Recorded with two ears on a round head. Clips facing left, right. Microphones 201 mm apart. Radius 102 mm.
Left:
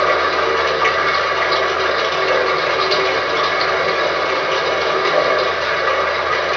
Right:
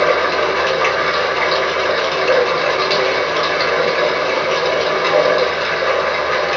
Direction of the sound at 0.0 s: 60° right (ahead or behind).